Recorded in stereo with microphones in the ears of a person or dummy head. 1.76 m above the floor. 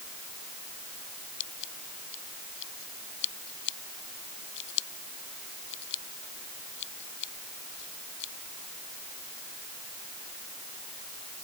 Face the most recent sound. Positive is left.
turn(degrees=70)  # may be behind; listen again after turning